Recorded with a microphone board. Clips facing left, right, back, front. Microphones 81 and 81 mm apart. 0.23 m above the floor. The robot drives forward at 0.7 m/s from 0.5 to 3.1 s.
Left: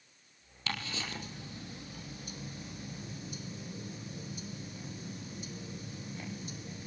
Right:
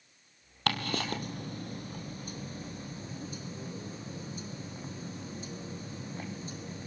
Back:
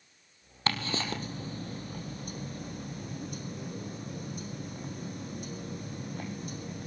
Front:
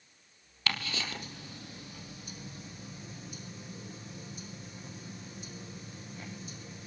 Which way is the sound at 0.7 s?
120° right.